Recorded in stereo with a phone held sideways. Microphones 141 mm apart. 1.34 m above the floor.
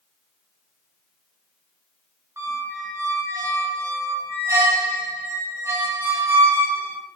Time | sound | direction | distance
2.4 | a squeak | 20° right (ahead or behind) | 0.6 m